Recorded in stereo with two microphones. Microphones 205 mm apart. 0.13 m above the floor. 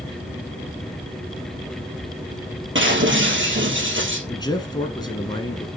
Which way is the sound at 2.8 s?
70° right (ahead or behind).